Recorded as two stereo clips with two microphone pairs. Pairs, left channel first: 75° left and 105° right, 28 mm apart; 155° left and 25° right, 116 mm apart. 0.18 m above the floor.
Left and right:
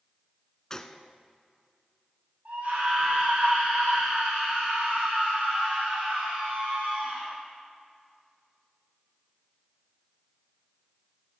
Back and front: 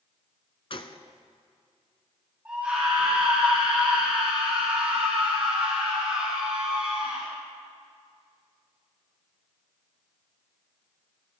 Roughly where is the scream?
Right.